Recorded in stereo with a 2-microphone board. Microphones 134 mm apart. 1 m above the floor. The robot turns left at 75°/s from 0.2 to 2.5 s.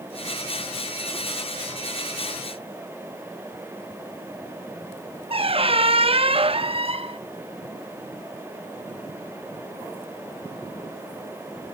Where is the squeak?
45° right (ahead or behind), 0.6 m.